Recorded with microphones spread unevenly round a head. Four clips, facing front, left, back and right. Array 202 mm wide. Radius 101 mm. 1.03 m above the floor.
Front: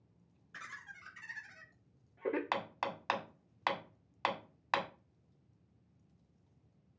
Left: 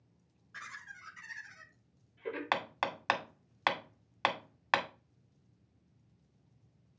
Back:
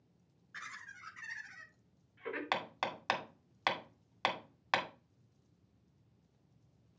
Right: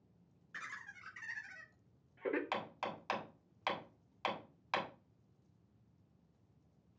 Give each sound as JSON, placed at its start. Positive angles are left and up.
{"t": 0.5, "sound": "laughter", "azimuth_deg": -55, "distance_m": 3.0}
{"t": 2.5, "sound": "hammering", "azimuth_deg": 110, "distance_m": 1.9}